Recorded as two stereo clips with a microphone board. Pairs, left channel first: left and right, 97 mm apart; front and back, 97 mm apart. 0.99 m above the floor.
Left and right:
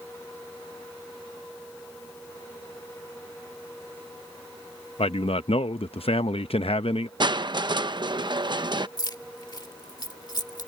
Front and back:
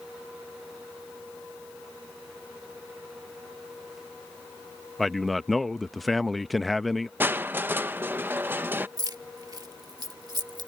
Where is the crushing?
115° right.